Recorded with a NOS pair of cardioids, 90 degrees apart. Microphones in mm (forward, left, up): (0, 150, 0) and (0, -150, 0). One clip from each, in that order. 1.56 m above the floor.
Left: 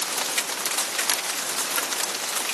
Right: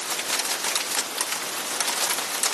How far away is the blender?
I don't hear a blender.